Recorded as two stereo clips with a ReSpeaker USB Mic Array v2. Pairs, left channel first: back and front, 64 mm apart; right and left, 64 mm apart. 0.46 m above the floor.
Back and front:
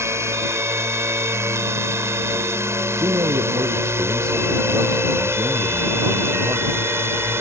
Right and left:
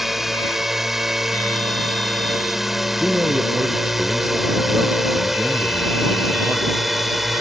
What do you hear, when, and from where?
0.0 s a drone: 5° left
3.0 s a man speaking: 20° left